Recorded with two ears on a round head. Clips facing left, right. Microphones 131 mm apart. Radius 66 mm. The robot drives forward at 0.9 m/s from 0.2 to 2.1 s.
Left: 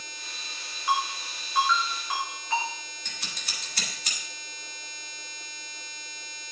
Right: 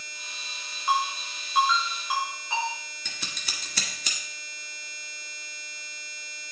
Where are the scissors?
60° right (ahead or behind), 1.5 m.